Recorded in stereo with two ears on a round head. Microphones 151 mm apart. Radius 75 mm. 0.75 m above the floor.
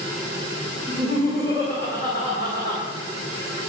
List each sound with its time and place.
0.9 s laughter: 30° right (ahead or behind), 3 m